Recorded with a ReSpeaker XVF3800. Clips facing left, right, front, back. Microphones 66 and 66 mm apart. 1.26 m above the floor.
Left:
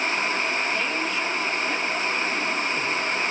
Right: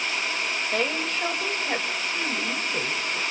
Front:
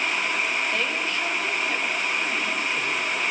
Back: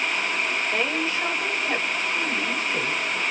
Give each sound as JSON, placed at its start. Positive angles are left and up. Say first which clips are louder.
{"t": 0.7, "sound": "a woman speaking", "louder": "even, back 1 dB", "azimuth_deg": -110, "distance_m": 6.0}